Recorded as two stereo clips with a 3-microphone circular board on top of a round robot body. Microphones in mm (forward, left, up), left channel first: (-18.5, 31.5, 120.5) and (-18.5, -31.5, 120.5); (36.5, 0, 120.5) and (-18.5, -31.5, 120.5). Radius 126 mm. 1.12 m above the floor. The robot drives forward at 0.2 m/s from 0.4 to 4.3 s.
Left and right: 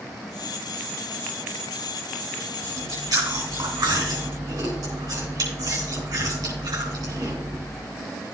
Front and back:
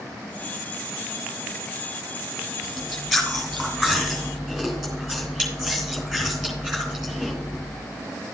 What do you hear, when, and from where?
2.6 s chewing: 65° right, 3.5 m; by 7.7 s 70° right, 3.5 m